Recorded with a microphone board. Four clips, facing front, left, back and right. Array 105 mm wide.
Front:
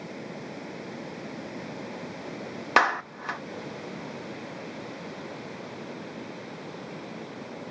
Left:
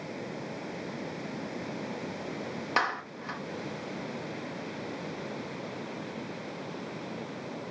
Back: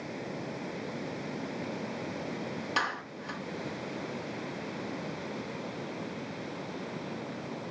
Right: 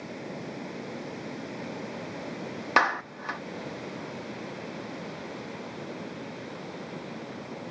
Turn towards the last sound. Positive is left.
turn(degrees=-25)